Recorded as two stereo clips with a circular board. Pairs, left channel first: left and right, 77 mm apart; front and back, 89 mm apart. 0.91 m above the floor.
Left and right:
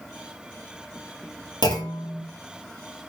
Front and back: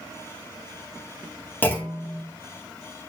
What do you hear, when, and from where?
1.6 s a clunk: 70° left, 1.6 m